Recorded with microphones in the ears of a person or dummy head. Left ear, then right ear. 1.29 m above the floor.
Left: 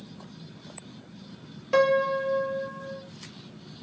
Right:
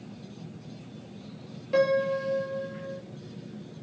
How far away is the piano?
About 1.8 m.